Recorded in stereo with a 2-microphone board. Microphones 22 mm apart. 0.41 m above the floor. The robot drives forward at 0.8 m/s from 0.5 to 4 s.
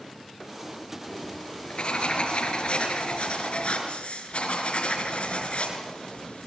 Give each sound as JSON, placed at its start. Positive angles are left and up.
{"t": 1.1, "sound": "writing", "side_deg": 50, "distance_m": 5.5}